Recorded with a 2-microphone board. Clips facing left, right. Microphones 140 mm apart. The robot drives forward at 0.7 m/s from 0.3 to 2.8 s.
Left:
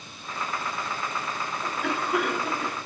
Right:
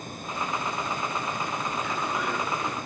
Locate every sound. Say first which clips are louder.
1.6 s a cough: left 1 dB; 65° left (ahead or behind), 3.5 m; by 2.8 s 55° left (ahead or behind), 3.5 m